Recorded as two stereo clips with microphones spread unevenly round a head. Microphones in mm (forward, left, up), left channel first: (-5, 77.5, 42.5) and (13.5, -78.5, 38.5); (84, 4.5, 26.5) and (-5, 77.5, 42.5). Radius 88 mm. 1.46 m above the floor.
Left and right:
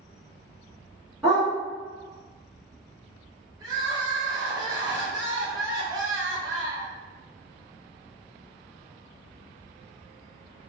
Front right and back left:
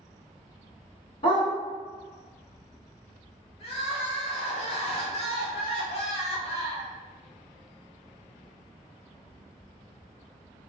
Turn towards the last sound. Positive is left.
turn(degrees=-20)